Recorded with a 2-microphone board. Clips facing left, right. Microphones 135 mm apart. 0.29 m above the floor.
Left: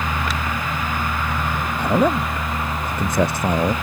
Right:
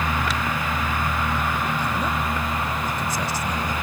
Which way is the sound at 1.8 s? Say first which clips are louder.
Left 7 dB; 60° left (ahead or behind).